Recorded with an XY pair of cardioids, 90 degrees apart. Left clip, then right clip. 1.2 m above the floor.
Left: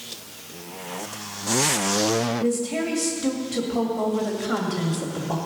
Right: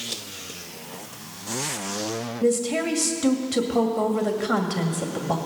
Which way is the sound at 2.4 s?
35° right.